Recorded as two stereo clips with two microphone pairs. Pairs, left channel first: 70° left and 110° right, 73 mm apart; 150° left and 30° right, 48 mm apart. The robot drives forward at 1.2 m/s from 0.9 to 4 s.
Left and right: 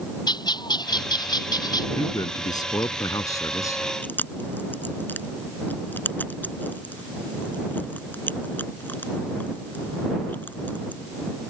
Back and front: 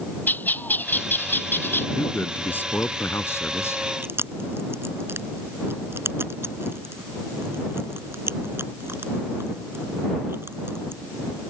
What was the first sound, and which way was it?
A bird, 95° left.